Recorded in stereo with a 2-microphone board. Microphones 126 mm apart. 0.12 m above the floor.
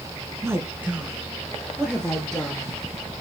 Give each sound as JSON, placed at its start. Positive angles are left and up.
{"t": 0.4, "sound": "a woman speaking", "side_deg": -20, "distance_m": 1.1}